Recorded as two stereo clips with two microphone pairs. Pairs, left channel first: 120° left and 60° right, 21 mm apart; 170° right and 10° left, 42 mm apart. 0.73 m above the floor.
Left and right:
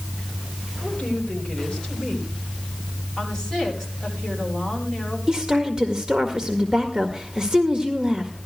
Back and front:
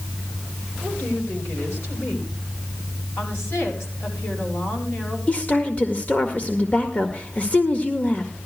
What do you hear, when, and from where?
0.8 s a woman speaking: 170° left, 4.5 m
3.2 s a woman speaking: 170° right, 8 m
5.3 s a woman speaking: 120° right, 1.6 m